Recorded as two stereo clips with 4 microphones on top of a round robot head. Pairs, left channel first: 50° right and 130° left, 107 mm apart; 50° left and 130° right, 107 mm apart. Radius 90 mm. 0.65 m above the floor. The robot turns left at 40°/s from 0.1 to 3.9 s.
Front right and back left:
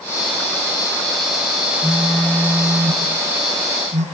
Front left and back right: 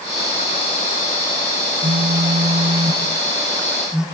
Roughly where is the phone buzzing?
Behind right.